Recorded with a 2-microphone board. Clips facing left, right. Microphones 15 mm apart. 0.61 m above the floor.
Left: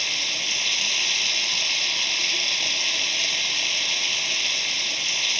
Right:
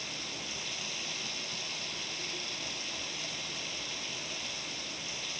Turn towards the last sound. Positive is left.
turn(degrees=50)  # may be behind; listen again after turning